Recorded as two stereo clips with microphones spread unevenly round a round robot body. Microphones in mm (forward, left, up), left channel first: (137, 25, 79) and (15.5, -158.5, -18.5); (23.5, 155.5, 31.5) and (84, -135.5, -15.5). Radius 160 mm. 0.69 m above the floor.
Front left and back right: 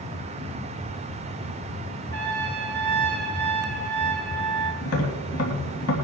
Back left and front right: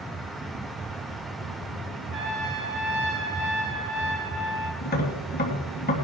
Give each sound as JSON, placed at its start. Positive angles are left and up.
{"t": 2.1, "sound": "a trumpet", "azimuth_deg": -25, "distance_m": 5.5}
{"t": 4.8, "sound": "tapping", "azimuth_deg": 40, "distance_m": 3.0}